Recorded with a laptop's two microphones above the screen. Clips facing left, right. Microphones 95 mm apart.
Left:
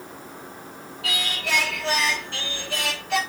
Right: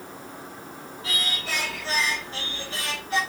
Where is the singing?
85° left, 7 m.